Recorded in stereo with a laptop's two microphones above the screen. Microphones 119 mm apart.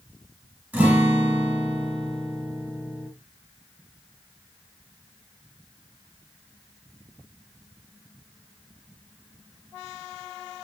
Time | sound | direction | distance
0.7 | a guitar | 15° right (ahead or behind) | 0.9 m